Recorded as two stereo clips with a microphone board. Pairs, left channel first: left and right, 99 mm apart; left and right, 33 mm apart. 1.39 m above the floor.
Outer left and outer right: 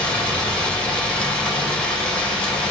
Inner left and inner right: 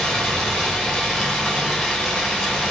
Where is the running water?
10° left (ahead or behind), 5.5 m.